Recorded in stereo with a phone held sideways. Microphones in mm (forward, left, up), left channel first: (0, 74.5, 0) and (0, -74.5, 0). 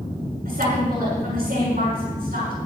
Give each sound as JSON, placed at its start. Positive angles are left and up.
{"t": 0.5, "sound": "a woman speaking", "side_deg": -85, "distance_m": 7.5}